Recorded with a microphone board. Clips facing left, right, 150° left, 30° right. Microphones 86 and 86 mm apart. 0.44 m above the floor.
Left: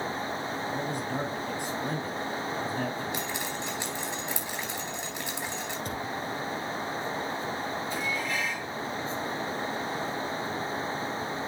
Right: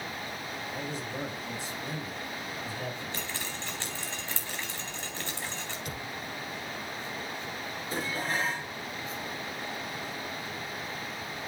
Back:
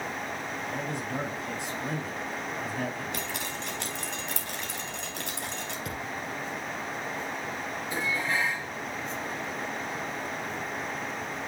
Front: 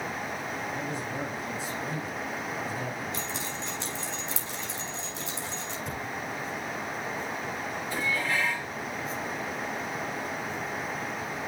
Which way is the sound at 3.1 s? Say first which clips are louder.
Left 5 dB, even; 165° left.